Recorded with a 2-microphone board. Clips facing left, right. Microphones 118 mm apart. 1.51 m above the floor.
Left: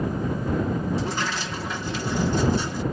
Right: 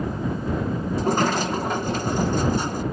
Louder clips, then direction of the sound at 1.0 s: Right 7 dB; 45° right (ahead or behind).